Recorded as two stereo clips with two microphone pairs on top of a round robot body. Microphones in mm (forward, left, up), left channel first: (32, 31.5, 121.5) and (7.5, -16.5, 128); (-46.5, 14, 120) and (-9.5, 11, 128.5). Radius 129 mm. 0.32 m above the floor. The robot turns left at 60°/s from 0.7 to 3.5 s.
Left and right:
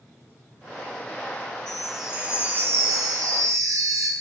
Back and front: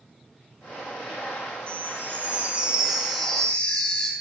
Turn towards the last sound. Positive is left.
turn(degrees=-125)